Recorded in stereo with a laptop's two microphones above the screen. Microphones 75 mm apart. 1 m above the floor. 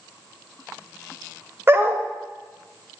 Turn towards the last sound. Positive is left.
turn(degrees=-30)  # may be behind; listen again after turning